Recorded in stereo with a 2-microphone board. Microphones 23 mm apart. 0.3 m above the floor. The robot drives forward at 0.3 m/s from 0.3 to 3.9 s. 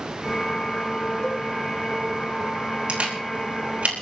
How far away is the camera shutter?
About 4 m.